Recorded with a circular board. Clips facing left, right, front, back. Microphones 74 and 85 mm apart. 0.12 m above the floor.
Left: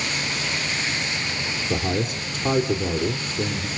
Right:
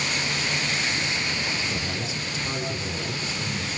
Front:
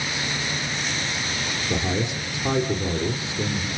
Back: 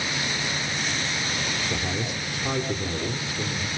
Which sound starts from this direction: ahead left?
A man speaking, at 1.7 s.